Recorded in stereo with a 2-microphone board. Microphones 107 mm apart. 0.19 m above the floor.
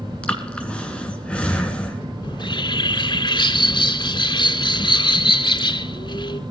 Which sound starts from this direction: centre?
Breathing, at 0.2 s.